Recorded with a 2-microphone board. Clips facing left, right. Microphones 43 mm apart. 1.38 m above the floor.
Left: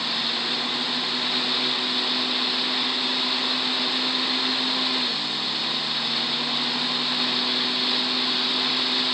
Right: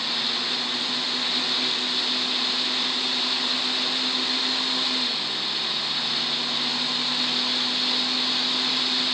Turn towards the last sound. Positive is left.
No sound to turn to.